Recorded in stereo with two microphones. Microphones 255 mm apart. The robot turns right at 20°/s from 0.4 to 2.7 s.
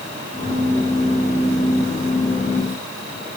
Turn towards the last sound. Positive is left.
No sound to turn to.